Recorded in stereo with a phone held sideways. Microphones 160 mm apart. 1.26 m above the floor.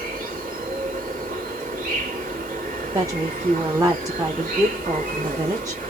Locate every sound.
0.0 s an insect: 65° right (ahead or behind), 1.5 m
2.9 s a woman speaking: 25° right (ahead or behind), 0.7 m